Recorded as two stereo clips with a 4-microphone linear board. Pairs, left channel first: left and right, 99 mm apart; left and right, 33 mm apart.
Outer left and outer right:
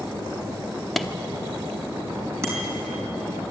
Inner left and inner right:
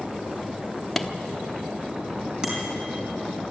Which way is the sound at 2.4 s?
30° right (ahead or behind).